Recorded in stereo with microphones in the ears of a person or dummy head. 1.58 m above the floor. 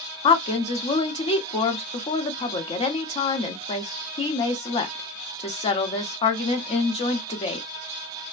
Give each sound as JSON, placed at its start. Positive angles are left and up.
{"t": 0.2, "sound": "a woman speaking", "side_deg": 25, "distance_m": 0.7}